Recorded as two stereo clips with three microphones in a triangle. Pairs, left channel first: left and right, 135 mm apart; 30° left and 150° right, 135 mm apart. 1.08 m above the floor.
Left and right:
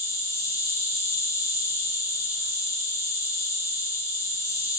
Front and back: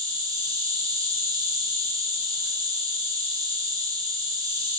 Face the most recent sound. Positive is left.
turn(degrees=155)